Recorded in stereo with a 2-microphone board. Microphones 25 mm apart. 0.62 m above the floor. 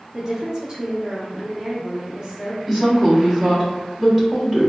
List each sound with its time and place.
0.1 s a woman speaking: 25° right (ahead or behind), 0.9 m
2.7 s a woman speaking: 25° right (ahead or behind), 1.2 m